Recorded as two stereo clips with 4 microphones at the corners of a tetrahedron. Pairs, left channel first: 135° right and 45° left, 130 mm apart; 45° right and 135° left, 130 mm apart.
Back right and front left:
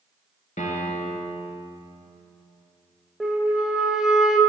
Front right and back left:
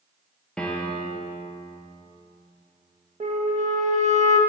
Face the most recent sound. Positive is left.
turn(degrees=130)